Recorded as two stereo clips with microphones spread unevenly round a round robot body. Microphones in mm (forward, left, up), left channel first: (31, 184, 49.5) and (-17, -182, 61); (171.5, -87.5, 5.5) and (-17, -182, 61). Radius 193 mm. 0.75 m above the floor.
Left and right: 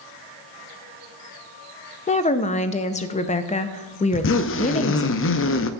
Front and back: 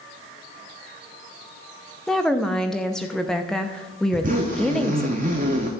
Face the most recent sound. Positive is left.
turn(degrees=140)